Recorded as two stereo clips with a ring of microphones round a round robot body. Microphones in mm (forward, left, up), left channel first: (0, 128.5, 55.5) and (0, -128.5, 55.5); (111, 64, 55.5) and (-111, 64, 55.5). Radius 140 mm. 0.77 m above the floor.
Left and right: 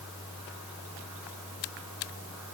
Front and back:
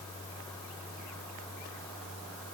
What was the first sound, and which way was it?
Only background noise.